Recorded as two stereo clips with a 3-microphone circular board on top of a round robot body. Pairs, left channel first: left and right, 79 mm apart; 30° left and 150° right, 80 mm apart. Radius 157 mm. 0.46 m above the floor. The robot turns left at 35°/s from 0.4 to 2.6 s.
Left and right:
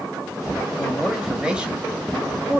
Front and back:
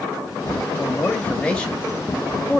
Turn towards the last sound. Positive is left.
turn(degrees=-65)